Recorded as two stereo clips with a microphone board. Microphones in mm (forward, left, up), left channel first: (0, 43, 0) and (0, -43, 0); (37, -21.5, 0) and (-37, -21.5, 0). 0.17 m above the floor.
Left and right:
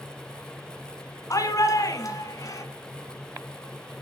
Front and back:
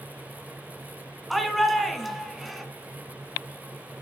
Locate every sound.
1.3 s a shout: 90° left, 1.6 m